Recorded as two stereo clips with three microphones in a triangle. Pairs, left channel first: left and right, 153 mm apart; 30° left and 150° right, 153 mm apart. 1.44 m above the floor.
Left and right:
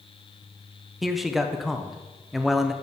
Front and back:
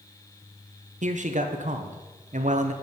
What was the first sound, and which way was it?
A man speaking, straight behind.